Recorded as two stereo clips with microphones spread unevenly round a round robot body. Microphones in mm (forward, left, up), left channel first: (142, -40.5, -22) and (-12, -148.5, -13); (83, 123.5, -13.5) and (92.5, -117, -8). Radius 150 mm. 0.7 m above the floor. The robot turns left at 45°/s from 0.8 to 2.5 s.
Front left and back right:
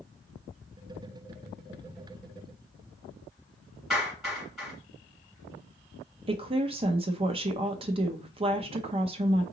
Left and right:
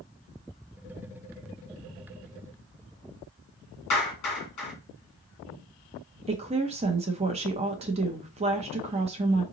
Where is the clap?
125° left, 2.5 m.